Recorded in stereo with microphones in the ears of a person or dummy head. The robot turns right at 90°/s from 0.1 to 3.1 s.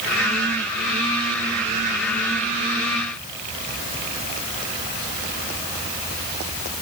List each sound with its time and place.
Only background noise.